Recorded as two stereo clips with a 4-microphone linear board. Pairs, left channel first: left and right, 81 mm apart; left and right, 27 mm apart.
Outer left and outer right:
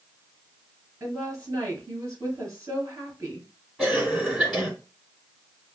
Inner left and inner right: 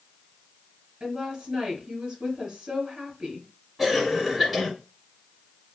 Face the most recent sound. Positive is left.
turn(degrees=0)  # may be behind; listen again after turning